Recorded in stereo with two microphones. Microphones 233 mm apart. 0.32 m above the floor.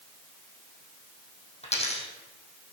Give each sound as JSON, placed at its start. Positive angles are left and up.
{"t": 1.6, "sound": "a dropped coin", "side_deg": 30, "distance_m": 2.5}